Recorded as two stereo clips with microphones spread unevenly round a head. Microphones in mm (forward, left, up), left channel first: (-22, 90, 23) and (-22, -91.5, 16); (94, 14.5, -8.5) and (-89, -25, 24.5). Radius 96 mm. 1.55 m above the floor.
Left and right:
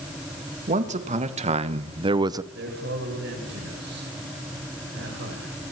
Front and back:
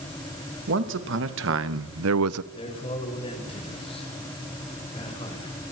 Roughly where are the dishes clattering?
I don't hear dishes clattering.